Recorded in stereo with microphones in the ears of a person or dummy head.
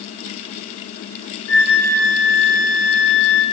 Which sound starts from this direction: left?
A flute, at 1.5 s.